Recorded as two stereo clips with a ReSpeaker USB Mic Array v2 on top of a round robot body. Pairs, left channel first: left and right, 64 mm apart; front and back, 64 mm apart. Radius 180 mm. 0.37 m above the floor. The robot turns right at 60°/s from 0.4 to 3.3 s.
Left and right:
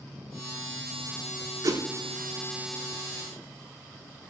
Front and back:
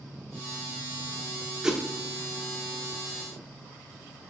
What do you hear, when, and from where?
1.6 s a whoosh: 105° right, 0.7 m; by 1.8 s 90° right, 0.7 m